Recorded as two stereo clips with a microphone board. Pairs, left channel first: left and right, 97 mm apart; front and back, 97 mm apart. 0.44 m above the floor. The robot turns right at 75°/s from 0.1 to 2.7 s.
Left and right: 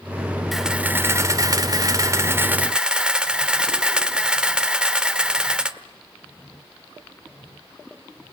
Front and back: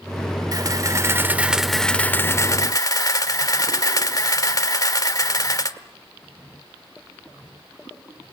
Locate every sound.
0.5 s a camera shutter: straight behind, 1.2 m; by 5.8 s 15° right, 1.2 m